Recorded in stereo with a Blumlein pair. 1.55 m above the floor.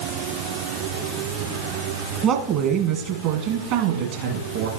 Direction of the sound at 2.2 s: 35° right.